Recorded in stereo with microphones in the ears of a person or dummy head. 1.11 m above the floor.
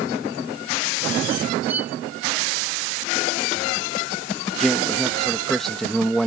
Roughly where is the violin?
Centre.